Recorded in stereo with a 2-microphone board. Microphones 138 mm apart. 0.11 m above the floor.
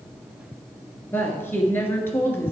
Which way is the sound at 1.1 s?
15° left (ahead or behind).